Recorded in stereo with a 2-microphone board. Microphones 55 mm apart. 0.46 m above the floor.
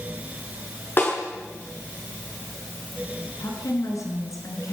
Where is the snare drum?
40° left (ahead or behind), 6.5 m.